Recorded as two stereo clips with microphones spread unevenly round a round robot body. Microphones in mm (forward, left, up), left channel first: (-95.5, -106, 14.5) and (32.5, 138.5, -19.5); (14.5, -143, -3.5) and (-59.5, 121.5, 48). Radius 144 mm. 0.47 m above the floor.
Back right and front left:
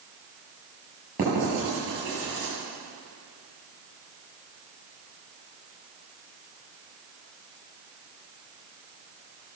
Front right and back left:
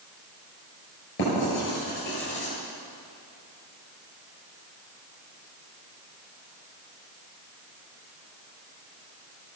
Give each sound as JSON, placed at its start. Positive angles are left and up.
{"t": 1.2, "sound": "writing", "azimuth_deg": -25, "distance_m": 8.0}